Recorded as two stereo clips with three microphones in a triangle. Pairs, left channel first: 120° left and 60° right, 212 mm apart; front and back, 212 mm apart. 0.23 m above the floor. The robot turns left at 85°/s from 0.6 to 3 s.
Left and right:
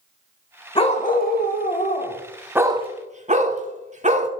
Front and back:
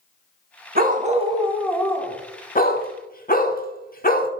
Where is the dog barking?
170° left, 0.7 m; by 4.3 s 20° right, 0.7 m.